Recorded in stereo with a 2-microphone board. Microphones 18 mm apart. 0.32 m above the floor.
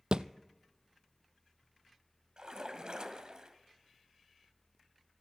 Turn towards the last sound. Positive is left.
turn(degrees=-55)  # may be behind; listen again after turning